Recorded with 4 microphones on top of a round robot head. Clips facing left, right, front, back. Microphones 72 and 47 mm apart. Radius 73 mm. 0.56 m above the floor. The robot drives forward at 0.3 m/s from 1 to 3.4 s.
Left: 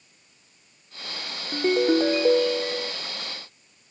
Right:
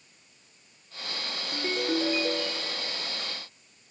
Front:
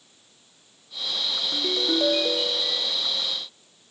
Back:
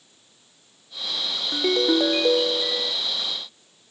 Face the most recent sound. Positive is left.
turn(degrees=150)